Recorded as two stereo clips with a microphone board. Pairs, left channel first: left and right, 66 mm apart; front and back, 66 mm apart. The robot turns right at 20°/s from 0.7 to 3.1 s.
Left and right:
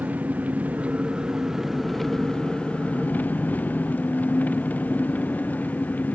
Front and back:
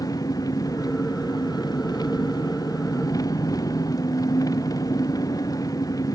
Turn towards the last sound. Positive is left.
turn(degrees=25)